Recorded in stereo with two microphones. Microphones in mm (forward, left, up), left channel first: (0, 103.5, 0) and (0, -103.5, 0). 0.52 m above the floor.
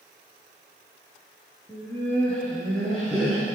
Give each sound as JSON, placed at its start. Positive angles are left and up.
{"t": 1.7, "sound": "laughter", "side_deg": 15, "distance_m": 7.5}